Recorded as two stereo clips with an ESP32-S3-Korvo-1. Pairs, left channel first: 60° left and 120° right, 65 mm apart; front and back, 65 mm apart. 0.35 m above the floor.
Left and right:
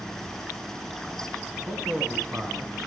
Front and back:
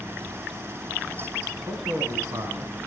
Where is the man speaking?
165° right, 4 m; by 2.8 s 170° left, 4 m.